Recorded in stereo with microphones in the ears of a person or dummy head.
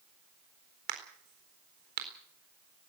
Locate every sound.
0.9 s a crack: 65° right (ahead or behind), 4 m